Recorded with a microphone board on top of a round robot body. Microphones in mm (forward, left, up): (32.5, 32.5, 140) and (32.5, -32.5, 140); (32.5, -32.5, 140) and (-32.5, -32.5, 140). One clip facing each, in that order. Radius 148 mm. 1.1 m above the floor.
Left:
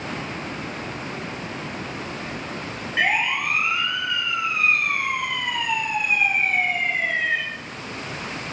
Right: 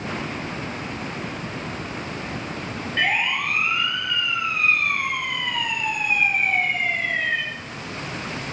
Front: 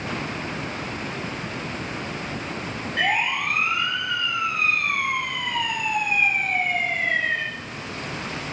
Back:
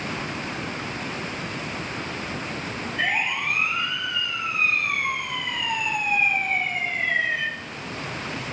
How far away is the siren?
About 6 m.